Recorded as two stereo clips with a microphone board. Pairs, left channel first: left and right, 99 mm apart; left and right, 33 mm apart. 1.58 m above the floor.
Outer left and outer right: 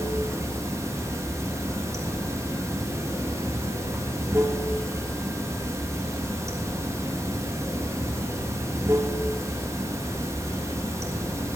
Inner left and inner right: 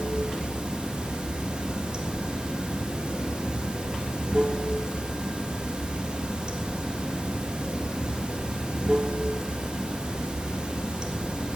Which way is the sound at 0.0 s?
30° right (ahead or behind).